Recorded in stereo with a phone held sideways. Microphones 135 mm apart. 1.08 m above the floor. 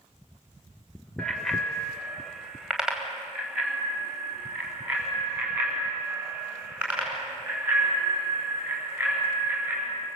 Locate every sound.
1.2 s a bicycle bell: 5° left (ahead or behind), 2.5 m; by 10.1 s 15° right (ahead or behind), 11 m